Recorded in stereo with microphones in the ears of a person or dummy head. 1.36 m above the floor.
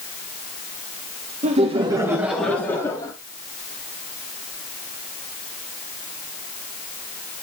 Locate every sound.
1.4 s laughter: 35° right (ahead or behind), 1.8 m; by 3.1 s 25° left (ahead or behind), 2 m